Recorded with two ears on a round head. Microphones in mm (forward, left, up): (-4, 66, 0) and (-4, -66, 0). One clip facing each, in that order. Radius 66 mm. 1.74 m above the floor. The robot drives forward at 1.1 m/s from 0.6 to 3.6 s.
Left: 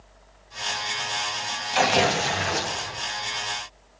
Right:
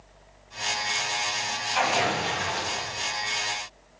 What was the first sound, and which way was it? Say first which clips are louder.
Tearing paper: left 4 dB; 40° left (ahead or behind).